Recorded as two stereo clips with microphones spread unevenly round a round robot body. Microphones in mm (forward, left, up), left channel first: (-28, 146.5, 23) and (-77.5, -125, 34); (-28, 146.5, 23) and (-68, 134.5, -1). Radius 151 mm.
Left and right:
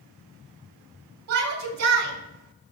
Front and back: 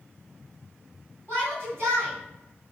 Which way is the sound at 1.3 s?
65° right.